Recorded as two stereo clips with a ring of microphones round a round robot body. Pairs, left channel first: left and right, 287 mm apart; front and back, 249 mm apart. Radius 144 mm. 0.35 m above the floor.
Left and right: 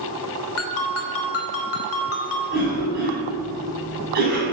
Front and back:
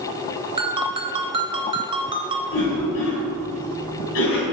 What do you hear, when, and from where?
0.6 s a ringtone: 115° left, 1.1 m
2.5 s a cough: 35° right, 2.5 m